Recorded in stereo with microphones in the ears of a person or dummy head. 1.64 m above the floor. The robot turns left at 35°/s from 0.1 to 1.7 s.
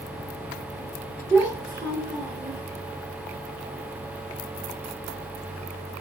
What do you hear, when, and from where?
1.3 s a child speaking: 10° right (ahead or behind), 0.9 m; by 2.6 s 20° right (ahead or behind), 0.9 m